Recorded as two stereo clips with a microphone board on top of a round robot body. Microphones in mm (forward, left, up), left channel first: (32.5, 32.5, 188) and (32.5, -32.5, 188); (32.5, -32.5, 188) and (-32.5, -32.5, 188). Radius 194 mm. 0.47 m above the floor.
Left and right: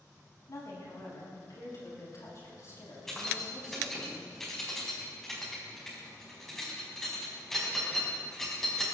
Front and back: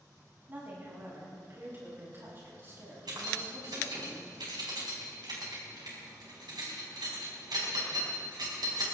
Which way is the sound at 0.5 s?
120° left.